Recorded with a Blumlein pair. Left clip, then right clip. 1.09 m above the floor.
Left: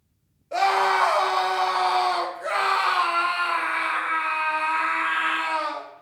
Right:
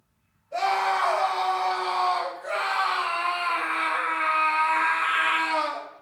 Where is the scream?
55° left, 2 m; by 5.9 s 30° right, 2 m.